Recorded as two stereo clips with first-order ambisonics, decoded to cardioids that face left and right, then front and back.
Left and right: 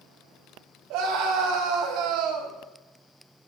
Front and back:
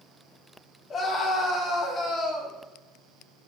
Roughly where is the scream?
Ahead right.